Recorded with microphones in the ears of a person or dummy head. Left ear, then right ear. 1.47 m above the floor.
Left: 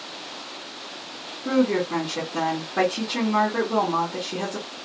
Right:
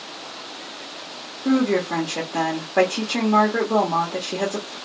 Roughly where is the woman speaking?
Right.